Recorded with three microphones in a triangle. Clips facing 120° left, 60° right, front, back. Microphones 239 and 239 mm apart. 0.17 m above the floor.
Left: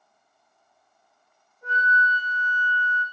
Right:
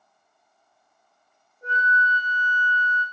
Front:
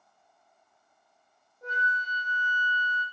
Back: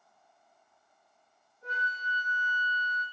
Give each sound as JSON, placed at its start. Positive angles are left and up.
{"t": 1.6, "sound": "a flute", "azimuth_deg": -5, "distance_m": 5.0}